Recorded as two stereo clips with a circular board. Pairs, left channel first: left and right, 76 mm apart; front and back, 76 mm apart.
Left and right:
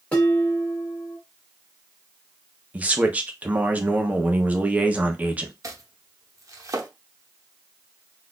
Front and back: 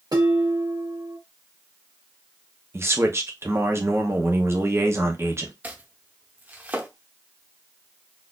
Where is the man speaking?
150° right, 0.8 m.